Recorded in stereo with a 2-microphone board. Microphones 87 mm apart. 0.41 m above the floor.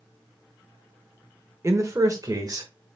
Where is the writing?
I don't hear writing.